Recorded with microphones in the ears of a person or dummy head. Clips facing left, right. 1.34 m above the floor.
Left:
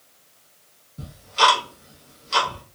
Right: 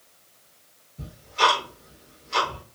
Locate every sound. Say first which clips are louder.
1.0 s ticking: left 2 dB; 50° left (ahead or behind), 0.8 m